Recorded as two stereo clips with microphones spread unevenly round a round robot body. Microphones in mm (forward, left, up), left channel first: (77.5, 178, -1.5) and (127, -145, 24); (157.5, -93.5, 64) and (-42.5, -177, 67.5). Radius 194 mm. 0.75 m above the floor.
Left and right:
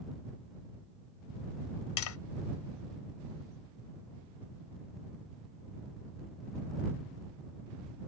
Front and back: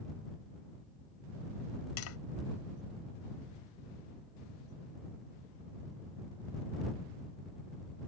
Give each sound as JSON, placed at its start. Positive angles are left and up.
{"t": 2.0, "sound": "tapping", "azimuth_deg": 65}